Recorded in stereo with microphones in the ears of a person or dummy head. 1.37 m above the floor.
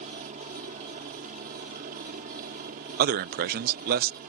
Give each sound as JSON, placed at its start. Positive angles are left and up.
{"t": 0.0, "sound": "a helicopter", "side_deg": -40}
{"t": 3.0, "sound": "a man speaking", "side_deg": -50}